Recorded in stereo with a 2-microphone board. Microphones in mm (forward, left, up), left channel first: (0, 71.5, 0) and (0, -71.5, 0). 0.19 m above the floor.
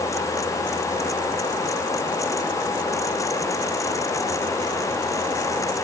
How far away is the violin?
No violin in this recording.